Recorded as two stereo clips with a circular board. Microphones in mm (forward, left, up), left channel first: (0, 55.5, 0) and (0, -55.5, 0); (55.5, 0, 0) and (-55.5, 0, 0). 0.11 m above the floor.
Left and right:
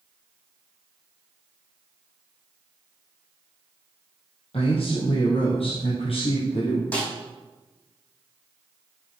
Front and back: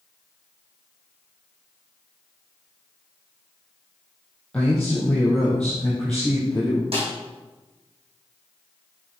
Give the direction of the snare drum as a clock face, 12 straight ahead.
6 o'clock.